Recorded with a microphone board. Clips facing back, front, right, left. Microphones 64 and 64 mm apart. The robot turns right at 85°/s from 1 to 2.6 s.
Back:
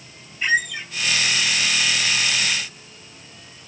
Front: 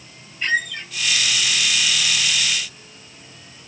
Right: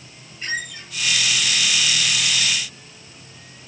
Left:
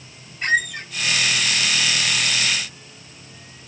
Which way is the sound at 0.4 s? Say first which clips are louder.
Back 1 dB, left 8 dB; 100° left.